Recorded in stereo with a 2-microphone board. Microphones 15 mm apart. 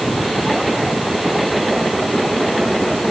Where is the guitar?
I don't hear a guitar.